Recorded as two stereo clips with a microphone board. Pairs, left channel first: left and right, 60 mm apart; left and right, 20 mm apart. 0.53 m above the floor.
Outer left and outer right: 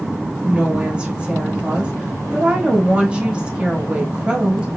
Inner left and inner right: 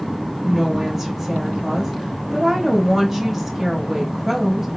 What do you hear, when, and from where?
0.4 s a woman speaking: 15° right (ahead or behind), 0.9 m